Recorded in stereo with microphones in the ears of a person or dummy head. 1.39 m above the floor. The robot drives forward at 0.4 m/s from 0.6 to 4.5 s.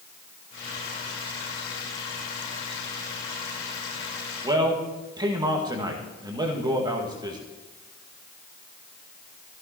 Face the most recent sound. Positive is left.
turn(degrees=-25)  # may be behind; listen again after turning